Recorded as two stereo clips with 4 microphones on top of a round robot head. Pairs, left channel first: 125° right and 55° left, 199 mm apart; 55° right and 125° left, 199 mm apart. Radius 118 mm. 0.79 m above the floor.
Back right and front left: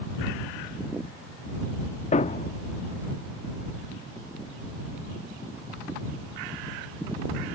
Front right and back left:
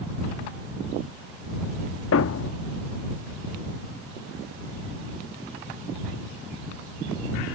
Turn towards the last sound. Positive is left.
turn(degrees=-70)